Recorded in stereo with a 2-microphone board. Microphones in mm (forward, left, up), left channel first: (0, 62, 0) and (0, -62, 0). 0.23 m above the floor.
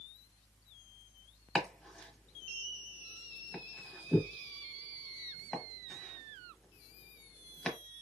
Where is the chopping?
5° left (ahead or behind), 1.1 m.